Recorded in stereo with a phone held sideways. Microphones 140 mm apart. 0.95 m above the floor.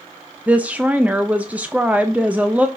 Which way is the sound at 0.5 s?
10° right (ahead or behind).